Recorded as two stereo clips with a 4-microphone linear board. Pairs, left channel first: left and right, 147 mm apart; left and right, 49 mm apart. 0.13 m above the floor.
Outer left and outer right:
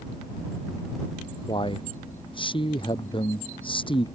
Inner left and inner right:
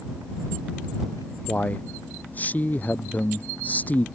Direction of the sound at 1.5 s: 35° left (ahead or behind).